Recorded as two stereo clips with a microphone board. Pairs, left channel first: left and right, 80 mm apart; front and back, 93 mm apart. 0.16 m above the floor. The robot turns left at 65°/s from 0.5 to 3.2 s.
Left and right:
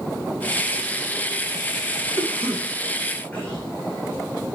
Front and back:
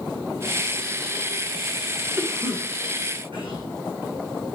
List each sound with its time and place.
2.2 s a cough: 130° right, 8 m; by 3.6 s 165° left, 8 m